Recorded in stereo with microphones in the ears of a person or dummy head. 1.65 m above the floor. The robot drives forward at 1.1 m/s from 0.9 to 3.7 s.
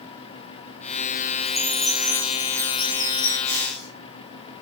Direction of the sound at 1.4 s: 5° right (ahead or behind).